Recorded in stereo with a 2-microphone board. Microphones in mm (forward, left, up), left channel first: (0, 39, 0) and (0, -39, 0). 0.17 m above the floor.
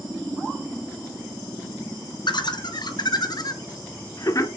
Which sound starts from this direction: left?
Laughter, at 2.3 s.